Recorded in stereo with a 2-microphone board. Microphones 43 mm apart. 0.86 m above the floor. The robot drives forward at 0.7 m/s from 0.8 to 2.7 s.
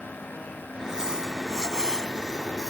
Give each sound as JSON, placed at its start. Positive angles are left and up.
{"t": 0.8, "sound": "crumpling", "side_deg": -15}